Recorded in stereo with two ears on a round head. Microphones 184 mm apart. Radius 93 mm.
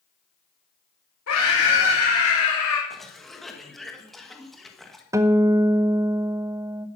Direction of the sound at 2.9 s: Centre (ahead or behind).